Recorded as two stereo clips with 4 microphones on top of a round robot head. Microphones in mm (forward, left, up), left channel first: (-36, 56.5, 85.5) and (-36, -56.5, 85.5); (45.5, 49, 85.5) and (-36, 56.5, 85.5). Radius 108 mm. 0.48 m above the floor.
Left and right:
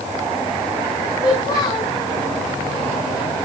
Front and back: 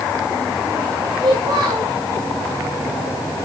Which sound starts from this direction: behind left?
A child speaking, at 1.2 s.